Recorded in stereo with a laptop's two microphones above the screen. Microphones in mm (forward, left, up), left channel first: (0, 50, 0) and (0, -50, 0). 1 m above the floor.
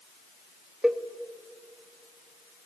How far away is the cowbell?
About 1.3 m.